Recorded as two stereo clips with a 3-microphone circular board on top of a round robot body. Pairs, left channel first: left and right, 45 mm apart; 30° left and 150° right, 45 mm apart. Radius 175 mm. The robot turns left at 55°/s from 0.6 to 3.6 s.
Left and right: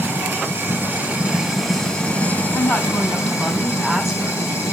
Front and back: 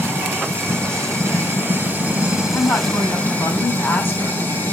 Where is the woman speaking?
65° left, 3.5 m; by 4.5 s 5° left, 3.5 m.